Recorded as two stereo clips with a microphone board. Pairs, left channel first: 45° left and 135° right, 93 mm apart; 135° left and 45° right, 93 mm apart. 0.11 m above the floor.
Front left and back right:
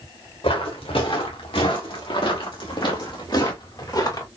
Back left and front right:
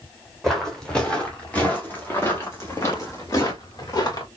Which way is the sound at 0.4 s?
50° left.